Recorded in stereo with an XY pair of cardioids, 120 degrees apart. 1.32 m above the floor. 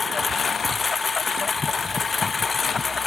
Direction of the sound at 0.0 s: 30° left.